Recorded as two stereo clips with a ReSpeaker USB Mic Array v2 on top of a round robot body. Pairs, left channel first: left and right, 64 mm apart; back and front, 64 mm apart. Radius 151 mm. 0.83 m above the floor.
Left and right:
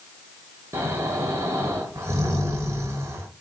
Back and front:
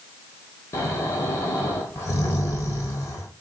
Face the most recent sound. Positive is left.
turn(degrees=-140)